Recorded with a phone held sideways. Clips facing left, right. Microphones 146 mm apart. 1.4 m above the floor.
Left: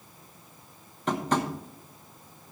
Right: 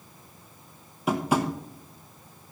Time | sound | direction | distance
1.1 | tapping | 10° right (ahead or behind) | 0.9 m